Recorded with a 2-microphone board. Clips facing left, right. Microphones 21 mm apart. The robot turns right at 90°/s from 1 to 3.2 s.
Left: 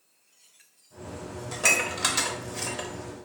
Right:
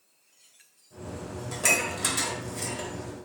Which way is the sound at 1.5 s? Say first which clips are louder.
Left 2 dB; 10° left (ahead or behind).